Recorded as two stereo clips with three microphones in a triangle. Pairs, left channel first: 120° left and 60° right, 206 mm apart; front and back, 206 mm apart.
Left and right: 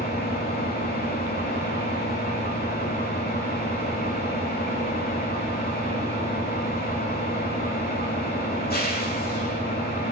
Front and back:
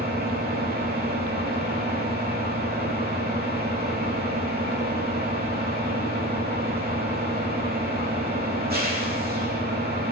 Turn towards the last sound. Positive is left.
turn(degrees=150)